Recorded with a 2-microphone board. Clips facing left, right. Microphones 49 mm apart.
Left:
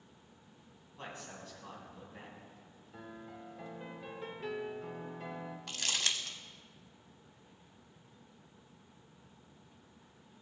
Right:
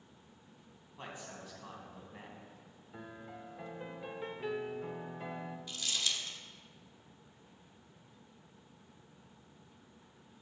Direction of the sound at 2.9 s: 15° right (ahead or behind).